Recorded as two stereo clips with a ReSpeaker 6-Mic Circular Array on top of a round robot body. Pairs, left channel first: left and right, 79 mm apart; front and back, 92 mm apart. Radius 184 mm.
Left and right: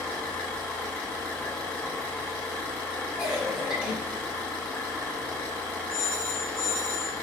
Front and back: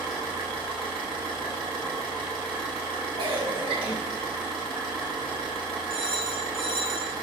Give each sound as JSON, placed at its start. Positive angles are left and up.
{"t": 0.0, "sound": "an engine running", "azimuth_deg": 155, "distance_m": 3.5}
{"t": 3.2, "sound": "a cough", "azimuth_deg": -170, "distance_m": 2.5}
{"t": 5.9, "sound": "a phone ringing", "azimuth_deg": 165, "distance_m": 1.6}